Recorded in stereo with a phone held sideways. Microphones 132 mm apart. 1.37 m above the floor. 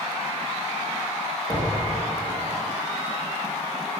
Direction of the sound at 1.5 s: 35° left (ahead or behind).